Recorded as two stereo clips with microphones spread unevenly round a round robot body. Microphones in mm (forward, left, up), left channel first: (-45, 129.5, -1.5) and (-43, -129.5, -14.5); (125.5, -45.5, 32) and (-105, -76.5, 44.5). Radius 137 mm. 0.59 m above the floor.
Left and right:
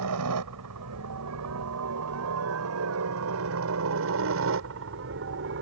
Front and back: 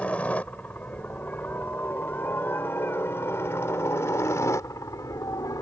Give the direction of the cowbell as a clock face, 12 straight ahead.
I don't hear a cowbell.